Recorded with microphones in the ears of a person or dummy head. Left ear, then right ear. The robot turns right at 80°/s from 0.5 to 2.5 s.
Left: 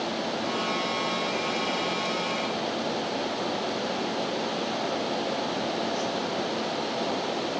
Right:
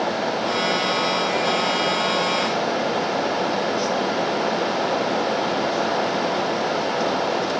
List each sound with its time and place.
Only background noise.